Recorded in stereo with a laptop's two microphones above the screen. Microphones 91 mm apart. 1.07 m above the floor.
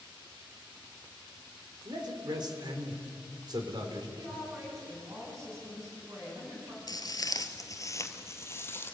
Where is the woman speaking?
35° right (ahead or behind), 7.5 m.